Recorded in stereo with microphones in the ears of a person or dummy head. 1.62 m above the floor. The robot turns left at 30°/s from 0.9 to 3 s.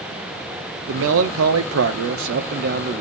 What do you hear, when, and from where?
0.9 s a man speaking: 75° right, 0.7 m; by 3.0 s 140° right, 0.7 m